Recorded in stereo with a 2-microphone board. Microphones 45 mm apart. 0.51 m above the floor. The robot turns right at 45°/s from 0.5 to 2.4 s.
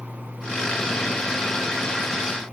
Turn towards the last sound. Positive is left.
No sound to turn to.